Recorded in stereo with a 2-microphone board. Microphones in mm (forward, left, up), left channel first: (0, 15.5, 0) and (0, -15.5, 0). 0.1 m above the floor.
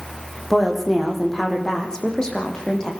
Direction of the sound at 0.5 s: 10° left (ahead or behind).